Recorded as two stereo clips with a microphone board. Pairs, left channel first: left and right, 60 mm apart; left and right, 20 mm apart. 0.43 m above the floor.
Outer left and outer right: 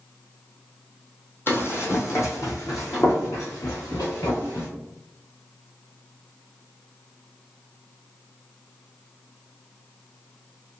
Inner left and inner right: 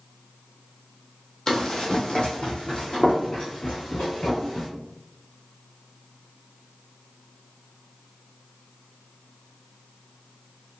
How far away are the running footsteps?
About 0.9 m.